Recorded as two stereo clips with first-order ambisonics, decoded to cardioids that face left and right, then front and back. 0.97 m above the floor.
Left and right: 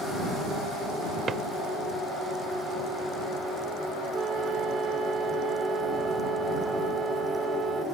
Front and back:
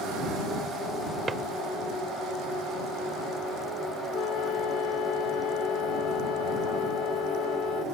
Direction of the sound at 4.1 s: 30° right.